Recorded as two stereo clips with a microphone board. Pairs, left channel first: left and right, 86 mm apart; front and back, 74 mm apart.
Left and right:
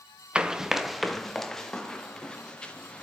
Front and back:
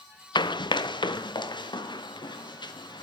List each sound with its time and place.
0.3 s running footsteps: 10° right, 1.0 m; by 3.0 s 10° left, 3 m